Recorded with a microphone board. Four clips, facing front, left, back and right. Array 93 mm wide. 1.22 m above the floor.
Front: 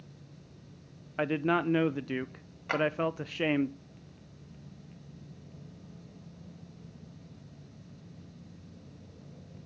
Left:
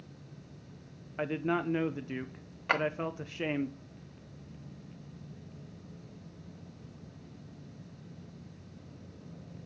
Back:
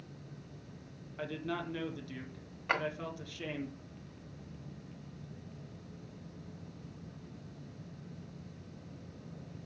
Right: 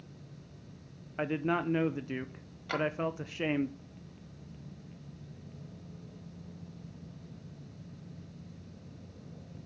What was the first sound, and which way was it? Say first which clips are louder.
A man speaking: even, front 10 dB; 5° right.